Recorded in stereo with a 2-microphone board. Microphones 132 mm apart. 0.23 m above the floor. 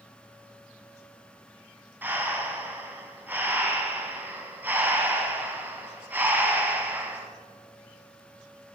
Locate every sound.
2.0 s breathing: 15° right (ahead or behind), 0.9 m